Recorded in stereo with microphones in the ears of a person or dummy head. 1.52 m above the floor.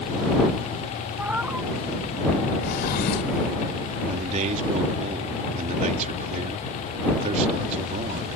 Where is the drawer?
50° left (ahead or behind).